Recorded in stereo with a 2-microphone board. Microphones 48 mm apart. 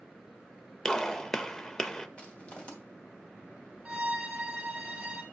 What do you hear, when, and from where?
0.8 s a gunshot: 15° left (ahead or behind), 0.6 m
2.2 s crushing: 25° left (ahead or behind), 2.5 m
3.9 s a violin: 25° right (ahead or behind), 1.5 m